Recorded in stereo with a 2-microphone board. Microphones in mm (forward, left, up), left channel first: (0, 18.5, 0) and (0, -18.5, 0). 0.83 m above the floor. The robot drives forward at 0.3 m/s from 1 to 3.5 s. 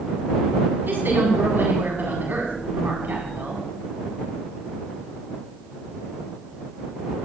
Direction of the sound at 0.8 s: 75° right (ahead or behind).